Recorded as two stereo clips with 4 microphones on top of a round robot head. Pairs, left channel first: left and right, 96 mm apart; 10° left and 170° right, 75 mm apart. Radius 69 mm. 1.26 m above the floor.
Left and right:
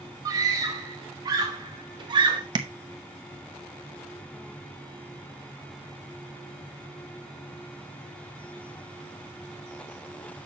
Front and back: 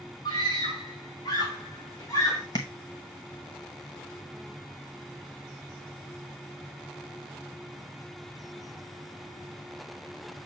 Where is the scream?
35° right, 2.5 m; by 2.4 s 55° right, 1.4 m.